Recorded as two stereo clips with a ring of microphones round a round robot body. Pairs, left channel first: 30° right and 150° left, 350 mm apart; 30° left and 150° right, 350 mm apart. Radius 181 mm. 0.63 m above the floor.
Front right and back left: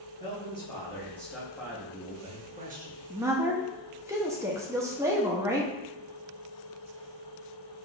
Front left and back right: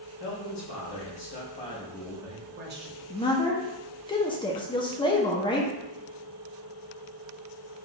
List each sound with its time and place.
0.2 s a man speaking: 45° left, 1.3 m; by 3.1 s 160° right, 1.0 m
3.1 s a woman speaking: 80° left, 0.6 m